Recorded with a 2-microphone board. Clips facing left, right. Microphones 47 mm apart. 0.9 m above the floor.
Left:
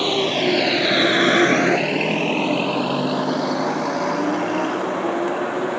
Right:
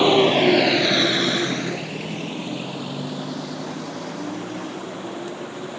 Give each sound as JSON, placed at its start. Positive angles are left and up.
{"t": 0.0, "sound": "a vehicle", "side_deg": -20}